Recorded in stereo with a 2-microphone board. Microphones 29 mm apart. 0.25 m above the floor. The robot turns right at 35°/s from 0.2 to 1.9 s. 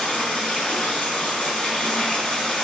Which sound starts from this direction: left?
Running water, at 0.0 s.